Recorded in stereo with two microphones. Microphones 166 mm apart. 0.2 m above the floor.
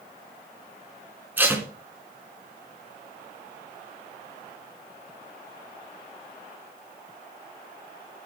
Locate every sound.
1.4 s tape being pulled: 10° right (ahead or behind), 3 m